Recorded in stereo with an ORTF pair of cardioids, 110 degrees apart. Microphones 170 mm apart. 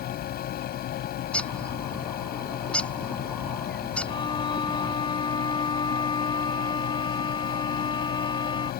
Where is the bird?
5° left.